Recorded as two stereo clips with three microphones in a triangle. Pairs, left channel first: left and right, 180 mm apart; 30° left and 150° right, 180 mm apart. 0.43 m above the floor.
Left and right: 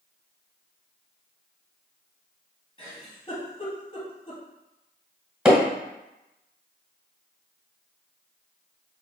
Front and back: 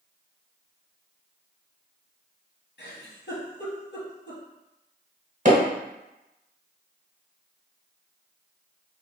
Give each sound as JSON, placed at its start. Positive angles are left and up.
{"t": 2.8, "sound": "a giggle", "azimuth_deg": 30, "distance_m": 1.7}
{"t": 5.5, "sound": "hammering", "azimuth_deg": -170, "distance_m": 1.5}